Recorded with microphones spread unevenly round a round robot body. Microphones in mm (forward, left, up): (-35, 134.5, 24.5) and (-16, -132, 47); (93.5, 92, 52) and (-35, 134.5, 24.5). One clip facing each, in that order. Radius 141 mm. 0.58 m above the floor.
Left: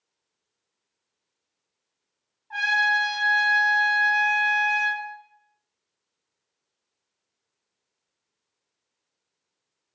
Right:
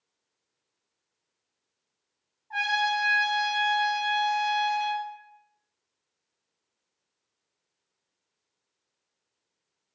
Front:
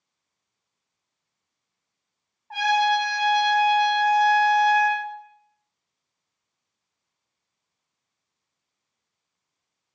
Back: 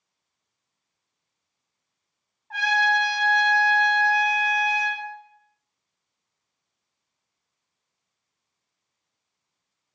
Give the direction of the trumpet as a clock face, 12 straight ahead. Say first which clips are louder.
Even, front 3 dB; 11 o'clock.